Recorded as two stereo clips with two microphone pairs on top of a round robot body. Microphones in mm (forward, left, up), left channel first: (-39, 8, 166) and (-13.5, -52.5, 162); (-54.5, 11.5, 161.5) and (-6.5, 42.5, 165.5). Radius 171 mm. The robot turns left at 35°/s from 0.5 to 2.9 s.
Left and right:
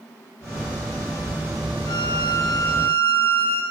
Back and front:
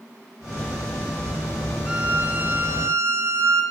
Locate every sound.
1.9 s a violin: 105° left, 0.8 m; by 3.6 s 70° left, 0.8 m